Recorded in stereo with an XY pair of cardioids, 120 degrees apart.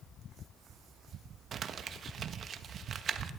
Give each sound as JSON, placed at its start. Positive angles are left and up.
{"t": 1.5, "sound": "crumpling", "azimuth_deg": -45, "distance_m": 1.2}